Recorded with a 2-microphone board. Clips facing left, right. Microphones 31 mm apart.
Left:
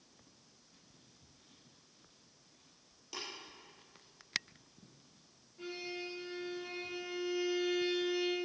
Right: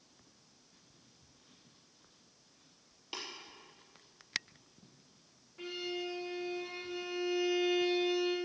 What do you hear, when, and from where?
3.1 s tapping: 45° right (ahead or behind), 4.5 m
5.6 s a violin: 45° right (ahead or behind), 5 m